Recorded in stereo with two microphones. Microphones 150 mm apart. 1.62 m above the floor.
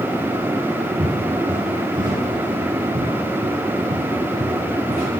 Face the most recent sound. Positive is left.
turn(degrees=-60)  # may be behind; listen again after turning